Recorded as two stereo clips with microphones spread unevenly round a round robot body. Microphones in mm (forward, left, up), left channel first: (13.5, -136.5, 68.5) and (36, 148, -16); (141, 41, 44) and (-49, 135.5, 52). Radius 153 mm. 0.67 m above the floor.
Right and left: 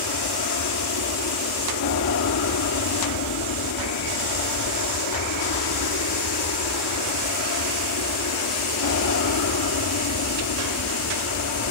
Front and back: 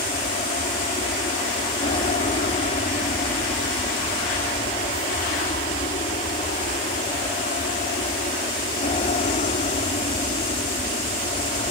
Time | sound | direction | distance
0.0 | an aircraft | 80° right | ?